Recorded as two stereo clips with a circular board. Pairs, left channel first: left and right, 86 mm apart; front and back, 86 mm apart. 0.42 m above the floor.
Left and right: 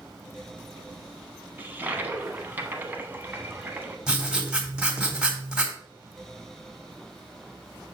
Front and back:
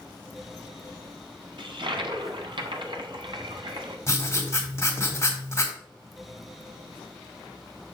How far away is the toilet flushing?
About 1.0 m.